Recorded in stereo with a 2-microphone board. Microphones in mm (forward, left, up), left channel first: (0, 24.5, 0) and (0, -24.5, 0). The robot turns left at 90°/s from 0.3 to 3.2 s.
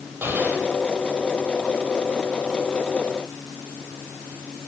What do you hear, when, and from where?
0.2 s an explosion: 130° right, 6 m; by 0.7 s 160° right, 6 m